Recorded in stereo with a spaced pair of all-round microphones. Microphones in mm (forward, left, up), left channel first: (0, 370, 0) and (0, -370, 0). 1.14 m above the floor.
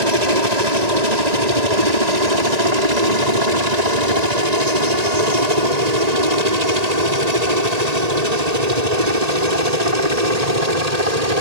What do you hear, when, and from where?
0.0 s a helicopter: 65° right (ahead or behind); by 11.4 s 60° right (ahead or behind)